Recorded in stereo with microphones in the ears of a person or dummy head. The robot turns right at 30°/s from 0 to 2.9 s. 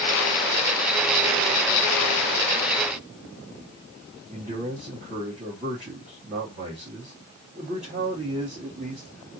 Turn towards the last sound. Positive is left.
turn(degrees=-40)  # may be behind; listen again after turning